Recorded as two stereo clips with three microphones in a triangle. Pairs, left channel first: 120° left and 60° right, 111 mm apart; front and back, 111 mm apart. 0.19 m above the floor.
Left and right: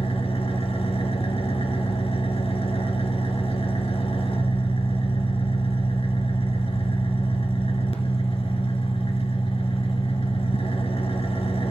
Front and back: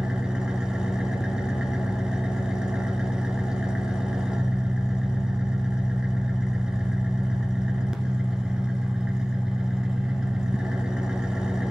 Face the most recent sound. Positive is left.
turn(degrees=95)